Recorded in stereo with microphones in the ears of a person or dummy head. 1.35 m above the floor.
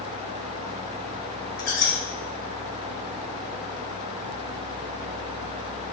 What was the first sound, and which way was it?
A squeak, 50° left (ahead or behind).